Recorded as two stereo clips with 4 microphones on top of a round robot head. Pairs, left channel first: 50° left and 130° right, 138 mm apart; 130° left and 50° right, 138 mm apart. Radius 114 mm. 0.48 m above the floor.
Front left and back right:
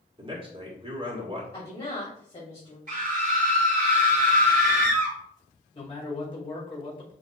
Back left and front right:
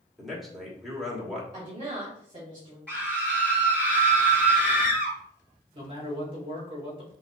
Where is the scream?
150° right, 2.5 m.